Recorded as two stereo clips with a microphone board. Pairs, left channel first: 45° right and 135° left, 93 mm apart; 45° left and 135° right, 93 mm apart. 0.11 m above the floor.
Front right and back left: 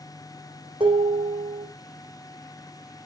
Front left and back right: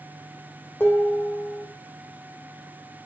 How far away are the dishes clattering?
About 3 m.